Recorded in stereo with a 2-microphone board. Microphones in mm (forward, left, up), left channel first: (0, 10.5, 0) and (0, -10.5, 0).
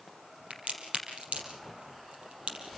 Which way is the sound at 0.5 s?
80° right.